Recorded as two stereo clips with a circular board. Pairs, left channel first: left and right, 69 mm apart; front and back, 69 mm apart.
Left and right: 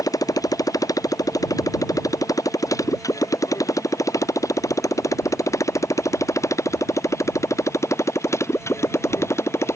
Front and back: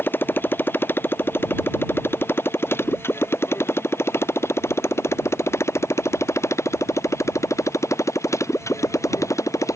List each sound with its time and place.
0.0 s a motorcycle: 60° left; by 9.8 s 40° left